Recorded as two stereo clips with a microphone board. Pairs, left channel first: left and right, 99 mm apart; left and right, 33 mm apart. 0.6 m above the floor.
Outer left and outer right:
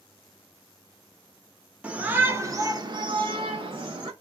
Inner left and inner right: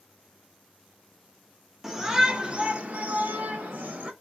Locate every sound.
1.8 s a shout: 15° right (ahead or behind), 1.4 m; by 4.1 s 60° right (ahead or behind), 1.5 m